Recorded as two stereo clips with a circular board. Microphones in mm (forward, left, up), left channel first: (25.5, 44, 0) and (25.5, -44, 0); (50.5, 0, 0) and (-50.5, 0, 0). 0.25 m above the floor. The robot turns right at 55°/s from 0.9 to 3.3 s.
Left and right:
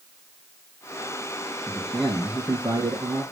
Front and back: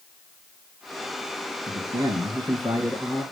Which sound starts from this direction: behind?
A man speaking, at 1.7 s.